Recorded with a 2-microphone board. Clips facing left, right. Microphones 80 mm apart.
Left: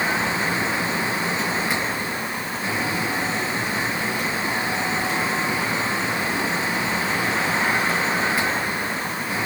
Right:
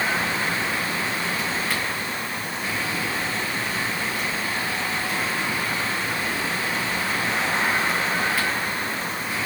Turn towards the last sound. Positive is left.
No sound to turn to.